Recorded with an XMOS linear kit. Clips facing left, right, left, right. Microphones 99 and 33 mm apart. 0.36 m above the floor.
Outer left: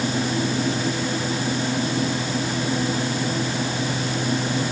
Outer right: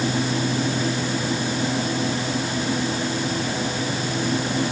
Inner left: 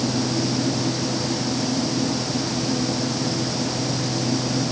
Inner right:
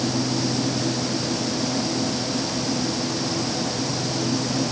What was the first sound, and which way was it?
Only background noise.